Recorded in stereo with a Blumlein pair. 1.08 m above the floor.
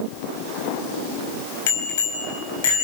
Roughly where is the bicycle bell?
Ahead left.